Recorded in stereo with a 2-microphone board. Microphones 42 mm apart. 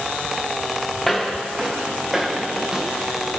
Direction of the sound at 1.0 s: 5° left (ahead or behind).